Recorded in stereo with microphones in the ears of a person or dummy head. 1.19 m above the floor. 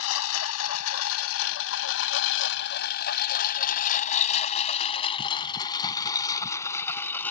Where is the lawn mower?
75° left (ahead or behind); by 7.3 s 10° left (ahead or behind).